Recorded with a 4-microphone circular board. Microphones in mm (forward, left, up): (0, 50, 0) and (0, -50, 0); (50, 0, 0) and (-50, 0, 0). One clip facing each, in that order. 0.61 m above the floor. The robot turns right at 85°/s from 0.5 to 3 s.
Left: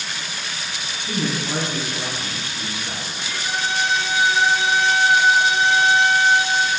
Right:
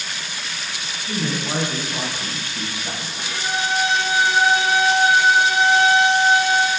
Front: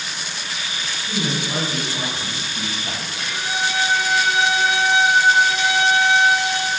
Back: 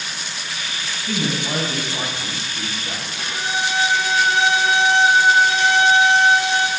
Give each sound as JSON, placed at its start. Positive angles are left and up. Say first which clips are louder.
{"t": 1.1, "sound": "a man speaking", "louder": "even, back 2 dB", "azimuth_deg": 160, "distance_m": 4.0}
{"t": 3.2, "sound": "a violin", "louder": "right 2 dB, back 1 dB", "azimuth_deg": -130, "distance_m": 1.7}